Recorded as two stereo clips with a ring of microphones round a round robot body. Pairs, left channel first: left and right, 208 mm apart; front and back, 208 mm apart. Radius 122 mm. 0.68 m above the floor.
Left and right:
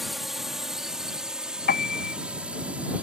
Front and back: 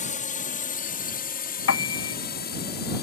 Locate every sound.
0.0 s a drone: straight ahead; by 3.0 s 10° right
1.7 s a piano: 35° left